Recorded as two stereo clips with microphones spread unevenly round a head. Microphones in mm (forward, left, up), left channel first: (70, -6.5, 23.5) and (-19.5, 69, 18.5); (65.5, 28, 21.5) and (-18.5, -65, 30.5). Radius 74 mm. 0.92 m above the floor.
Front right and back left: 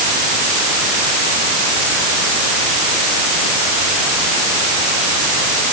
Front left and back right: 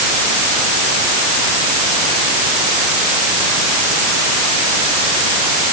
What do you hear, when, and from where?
Only background noise.